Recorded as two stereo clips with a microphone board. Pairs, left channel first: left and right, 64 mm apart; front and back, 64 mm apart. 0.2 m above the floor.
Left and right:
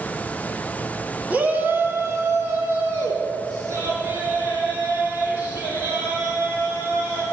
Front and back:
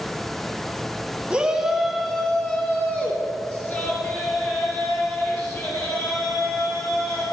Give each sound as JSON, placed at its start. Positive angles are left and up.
{"t": 1.3, "sound": "a shout", "azimuth_deg": -125, "distance_m": 1.3}